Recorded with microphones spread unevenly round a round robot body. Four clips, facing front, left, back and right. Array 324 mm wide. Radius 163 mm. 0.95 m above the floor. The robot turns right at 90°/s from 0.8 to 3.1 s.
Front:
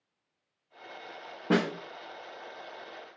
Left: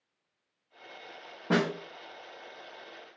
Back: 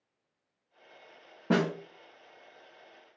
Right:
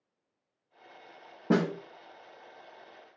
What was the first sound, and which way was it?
A snare drum, 75° right.